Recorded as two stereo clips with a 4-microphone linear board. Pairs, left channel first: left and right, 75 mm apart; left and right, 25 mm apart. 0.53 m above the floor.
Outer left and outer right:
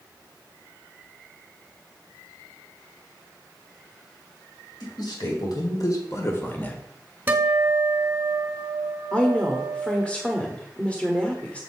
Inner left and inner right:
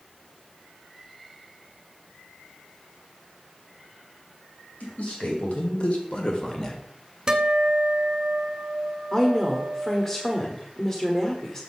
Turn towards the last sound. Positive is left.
turn(degrees=15)  # may be behind; listen again after turning